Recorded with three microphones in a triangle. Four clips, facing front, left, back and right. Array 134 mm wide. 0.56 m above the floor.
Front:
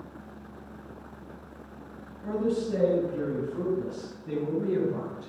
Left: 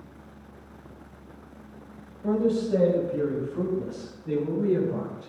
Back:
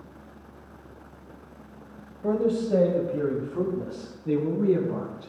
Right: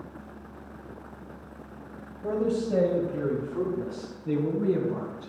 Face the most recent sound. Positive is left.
turn(degrees=-155)